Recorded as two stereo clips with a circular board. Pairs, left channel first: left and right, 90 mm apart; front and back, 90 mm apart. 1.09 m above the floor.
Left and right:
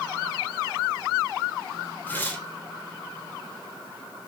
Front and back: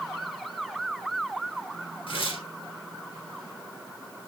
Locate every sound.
2.1 s tearing paper: 20° left, 3.5 m